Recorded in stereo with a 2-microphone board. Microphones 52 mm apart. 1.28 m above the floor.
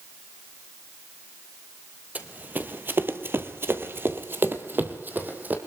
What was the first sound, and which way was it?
Running footsteps, 30° right (ahead or behind).